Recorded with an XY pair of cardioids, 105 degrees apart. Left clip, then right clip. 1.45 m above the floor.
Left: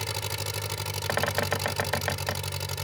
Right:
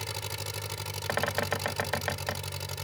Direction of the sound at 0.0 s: 30° left.